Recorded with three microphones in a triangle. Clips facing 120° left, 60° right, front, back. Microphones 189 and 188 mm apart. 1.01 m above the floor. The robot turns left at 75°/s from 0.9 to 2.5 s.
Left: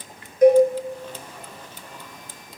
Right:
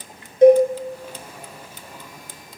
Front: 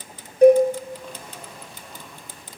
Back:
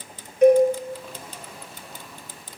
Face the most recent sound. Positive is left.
turn(degrees=-140)